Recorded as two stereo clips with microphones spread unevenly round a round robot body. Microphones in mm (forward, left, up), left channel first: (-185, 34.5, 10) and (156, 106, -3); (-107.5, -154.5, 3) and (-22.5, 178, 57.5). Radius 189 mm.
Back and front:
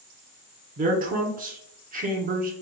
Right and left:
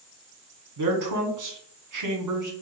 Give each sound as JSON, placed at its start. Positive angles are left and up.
{"t": 0.8, "sound": "a man speaking", "azimuth_deg": 65, "distance_m": 1.1}